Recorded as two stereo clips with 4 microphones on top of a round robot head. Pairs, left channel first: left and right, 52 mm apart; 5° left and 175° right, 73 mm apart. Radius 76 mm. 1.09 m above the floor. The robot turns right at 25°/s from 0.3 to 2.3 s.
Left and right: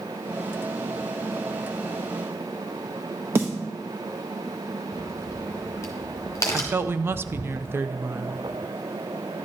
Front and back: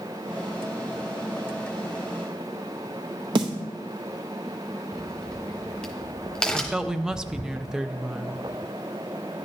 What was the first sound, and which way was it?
A snare drum, 145° right.